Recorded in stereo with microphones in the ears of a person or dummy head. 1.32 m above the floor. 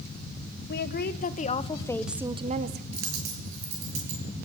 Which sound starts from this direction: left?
A woman speaking, at 0.7 s.